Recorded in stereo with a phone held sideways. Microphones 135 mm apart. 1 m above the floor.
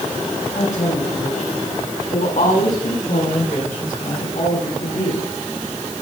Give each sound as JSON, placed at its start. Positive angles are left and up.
{"t": 0.6, "sound": "a woman speaking", "side_deg": 70, "distance_m": 7.0}